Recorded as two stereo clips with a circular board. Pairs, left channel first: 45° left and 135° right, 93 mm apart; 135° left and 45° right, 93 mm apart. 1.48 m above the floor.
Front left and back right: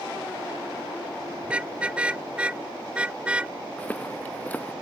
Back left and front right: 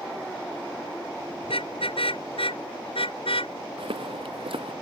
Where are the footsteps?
30° right.